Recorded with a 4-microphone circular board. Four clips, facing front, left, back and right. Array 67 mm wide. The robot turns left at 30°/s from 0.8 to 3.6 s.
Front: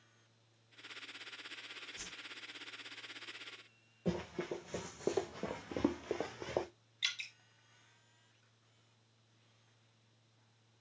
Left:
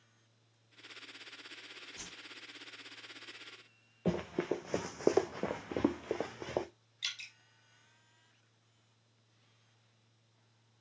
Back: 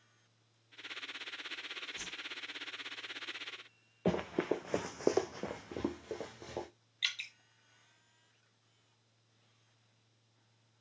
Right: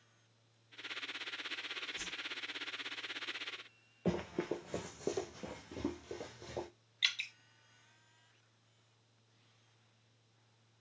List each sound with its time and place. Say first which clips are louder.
2.0 s a whoosh: right 5 dB, back 5 dB; 130° left, 1.1 m; by 2.2 s 125° left, 1.1 m
4.0 s running footsteps: left 2 dB, back 6 dB; straight behind, 0.9 m; by 6.7 s 55° left, 1.1 m
7.0 s dripping: right 7 dB, back 2 dB; 110° right, 1.1 m